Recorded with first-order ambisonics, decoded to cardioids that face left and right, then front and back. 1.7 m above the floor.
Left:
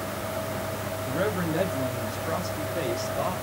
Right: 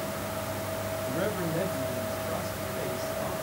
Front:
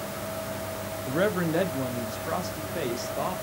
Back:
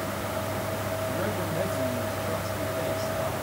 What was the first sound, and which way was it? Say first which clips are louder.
A man speaking: left 5 dB, front 3 dB; 10° left.